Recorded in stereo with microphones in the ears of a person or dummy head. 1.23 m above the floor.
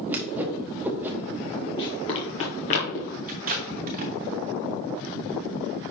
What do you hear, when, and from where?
0.1 s a whoosh: 10° right (ahead or behind), 1.0 m
1.8 s running footsteps: 25° left (ahead or behind), 1.7 m; by 3.2 s 50° left (ahead or behind), 1.9 m
3.3 s tape being pulled: 45° right (ahead or behind), 1.2 m